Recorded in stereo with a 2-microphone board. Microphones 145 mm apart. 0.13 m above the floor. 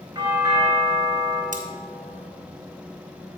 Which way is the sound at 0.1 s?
25° right (ahead or behind).